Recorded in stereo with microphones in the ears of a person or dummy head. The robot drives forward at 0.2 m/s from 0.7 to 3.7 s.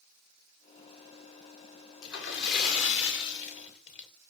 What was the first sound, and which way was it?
A splash, 60° left (ahead or behind).